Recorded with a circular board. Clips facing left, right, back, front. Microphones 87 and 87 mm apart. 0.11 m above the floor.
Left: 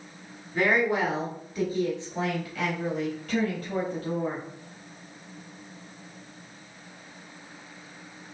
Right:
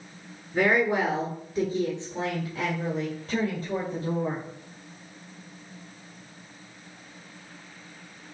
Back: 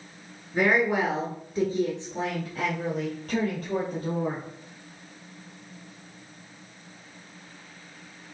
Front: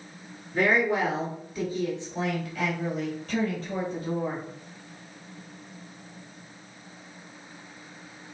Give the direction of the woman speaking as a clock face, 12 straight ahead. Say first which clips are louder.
Right 1 dB, back 1 dB; 4 o'clock.